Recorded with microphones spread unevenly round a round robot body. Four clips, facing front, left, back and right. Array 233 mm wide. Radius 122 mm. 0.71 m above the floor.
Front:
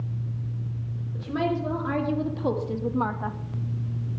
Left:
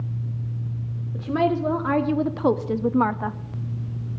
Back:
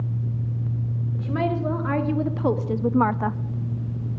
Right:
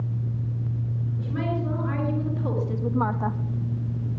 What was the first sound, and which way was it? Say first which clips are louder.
A woman speaking: left 8 dB, back 1 dB; 95° left.